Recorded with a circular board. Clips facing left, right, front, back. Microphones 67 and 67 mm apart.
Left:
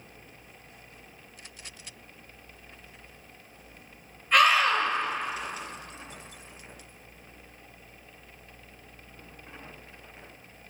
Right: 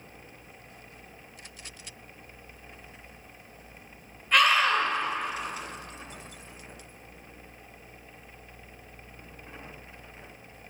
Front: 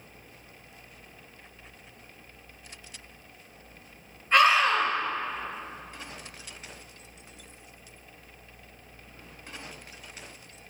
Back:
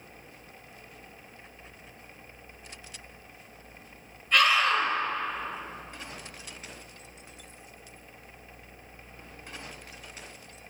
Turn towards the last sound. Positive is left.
turn(degrees=10)